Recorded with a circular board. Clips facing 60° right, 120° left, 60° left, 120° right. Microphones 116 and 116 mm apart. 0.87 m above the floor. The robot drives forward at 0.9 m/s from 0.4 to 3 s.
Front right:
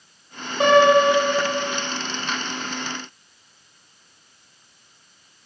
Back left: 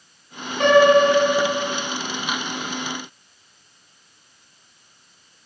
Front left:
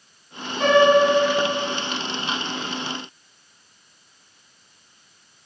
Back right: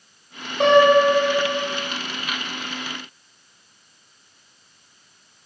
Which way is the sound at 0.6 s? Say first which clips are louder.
Back left 1 dB, back right 1 dB; 125° right.